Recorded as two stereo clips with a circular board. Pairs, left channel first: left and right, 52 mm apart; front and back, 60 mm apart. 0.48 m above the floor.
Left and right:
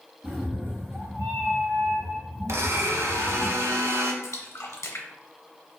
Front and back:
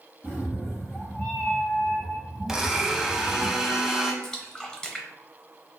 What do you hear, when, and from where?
0.2 s a cat meowing: 50° right, 1.8 m; by 3.5 s 140° right, 1.1 m
2.5 s a blender: 100° right, 0.6 m
4.2 s a splash: 75° left, 0.6 m